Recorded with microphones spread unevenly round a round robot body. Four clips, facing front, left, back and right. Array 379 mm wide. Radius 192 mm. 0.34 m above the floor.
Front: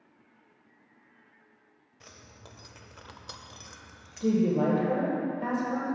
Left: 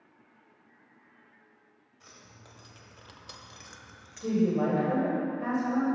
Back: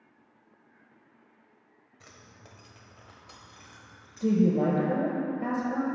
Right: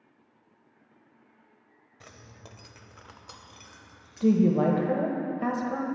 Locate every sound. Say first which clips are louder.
2.0 s keys jangling: right 4 dB, front 2 dB; 85° right, 0.9 m; by 4.4 s 35° left, 1.3 m
4.2 s a woman speaking: right 5 dB, back 1 dB; 100° right, 1.4 m